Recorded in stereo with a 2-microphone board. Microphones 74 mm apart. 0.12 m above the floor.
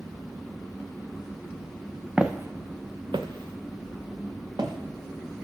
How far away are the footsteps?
About 0.6 m.